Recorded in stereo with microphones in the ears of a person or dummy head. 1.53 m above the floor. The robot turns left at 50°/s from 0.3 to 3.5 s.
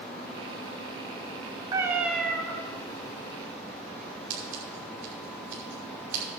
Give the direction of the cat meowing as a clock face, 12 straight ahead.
5 o'clock.